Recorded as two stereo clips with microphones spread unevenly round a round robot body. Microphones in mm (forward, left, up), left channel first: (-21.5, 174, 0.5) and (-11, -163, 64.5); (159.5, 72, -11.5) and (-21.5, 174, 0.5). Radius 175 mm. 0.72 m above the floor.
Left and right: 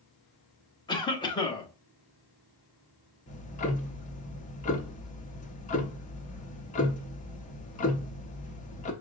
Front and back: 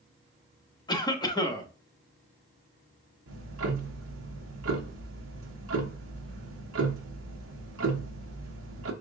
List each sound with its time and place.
0.9 s a cough: 30° left, 1.1 m
3.3 s ticking: 155° left, 0.9 m